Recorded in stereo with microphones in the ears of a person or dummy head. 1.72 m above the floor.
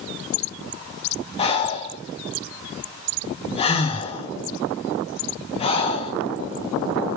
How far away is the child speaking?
No child speaking in this recording.